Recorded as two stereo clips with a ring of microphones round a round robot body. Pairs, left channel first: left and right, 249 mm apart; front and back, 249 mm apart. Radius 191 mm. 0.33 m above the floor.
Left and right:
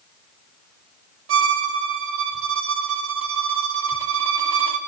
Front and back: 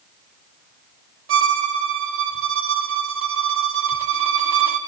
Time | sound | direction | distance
1.3 | a violin | 135° right | 1.3 m